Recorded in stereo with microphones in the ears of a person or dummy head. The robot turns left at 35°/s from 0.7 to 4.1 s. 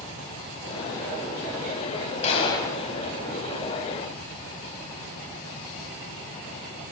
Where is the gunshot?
40° left (ahead or behind), 1.0 m; by 2.8 s 20° left (ahead or behind), 1.0 m.